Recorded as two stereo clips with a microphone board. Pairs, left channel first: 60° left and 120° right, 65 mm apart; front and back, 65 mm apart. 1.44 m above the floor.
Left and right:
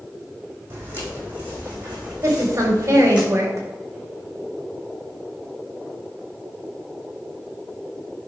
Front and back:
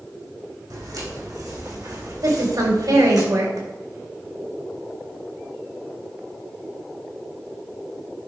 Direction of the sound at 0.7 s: 175° right.